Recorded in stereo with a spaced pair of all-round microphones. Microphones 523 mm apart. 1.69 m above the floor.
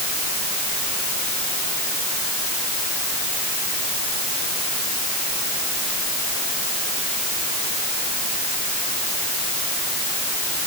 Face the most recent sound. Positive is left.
No sound to turn to.